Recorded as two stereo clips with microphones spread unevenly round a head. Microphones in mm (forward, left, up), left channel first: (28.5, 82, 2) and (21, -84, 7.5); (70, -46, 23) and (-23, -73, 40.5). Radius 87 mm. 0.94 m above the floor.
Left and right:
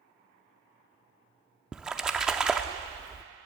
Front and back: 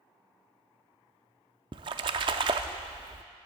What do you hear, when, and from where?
1.7 s a splash: 175° right, 0.5 m